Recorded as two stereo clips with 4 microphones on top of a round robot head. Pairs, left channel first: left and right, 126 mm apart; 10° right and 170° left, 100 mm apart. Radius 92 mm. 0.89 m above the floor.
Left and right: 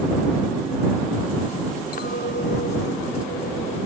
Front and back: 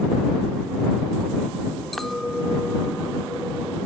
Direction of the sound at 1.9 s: 80° left.